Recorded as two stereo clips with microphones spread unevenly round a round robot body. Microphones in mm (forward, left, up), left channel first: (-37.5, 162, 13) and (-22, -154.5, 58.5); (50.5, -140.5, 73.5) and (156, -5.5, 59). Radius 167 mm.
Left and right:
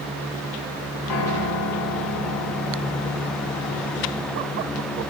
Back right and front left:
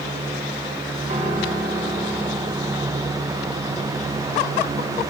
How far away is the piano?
About 3.5 m.